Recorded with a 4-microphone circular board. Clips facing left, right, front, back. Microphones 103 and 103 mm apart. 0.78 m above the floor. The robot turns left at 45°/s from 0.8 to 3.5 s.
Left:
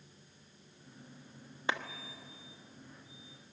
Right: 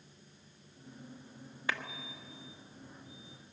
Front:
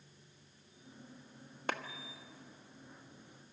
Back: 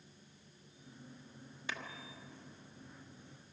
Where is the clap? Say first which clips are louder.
Left 2 dB, front 7 dB; 25° left, 1.2 m; by 1.8 s 20° left, 1.2 m.